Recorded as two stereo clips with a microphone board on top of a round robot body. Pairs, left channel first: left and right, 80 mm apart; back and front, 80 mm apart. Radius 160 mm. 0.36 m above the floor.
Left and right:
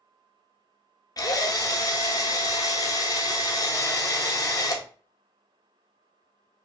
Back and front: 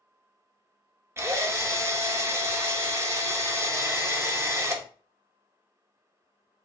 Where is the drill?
55° left, 0.7 m.